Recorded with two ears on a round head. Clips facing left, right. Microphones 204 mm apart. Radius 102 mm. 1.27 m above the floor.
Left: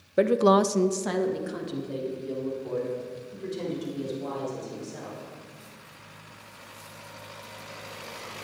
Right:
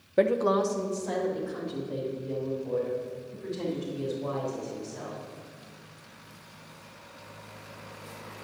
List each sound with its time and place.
0.2 s a woman speaking: 5° left (ahead or behind), 0.6 m; by 5.2 s 60° left (ahead or behind), 7.5 m